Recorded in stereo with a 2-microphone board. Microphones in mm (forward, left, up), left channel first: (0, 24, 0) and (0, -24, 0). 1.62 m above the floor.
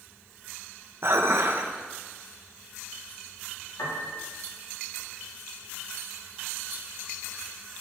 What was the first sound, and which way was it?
Dishes clattering, 55° right (ahead or behind).